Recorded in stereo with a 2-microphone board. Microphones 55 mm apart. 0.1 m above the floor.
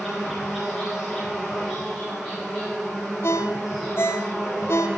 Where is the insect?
15° right (ahead or behind), 4.5 m.